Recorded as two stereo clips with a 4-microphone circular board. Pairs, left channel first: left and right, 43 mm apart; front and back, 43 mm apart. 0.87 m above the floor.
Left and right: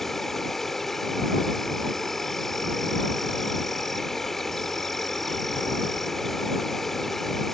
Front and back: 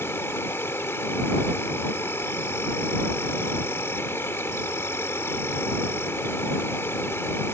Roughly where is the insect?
Ahead.